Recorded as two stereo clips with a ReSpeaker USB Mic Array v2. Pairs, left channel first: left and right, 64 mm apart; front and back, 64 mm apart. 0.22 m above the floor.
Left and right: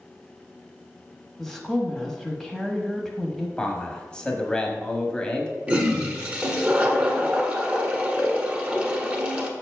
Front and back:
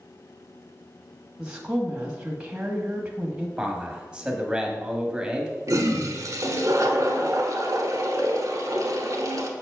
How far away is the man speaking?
About 1.1 m.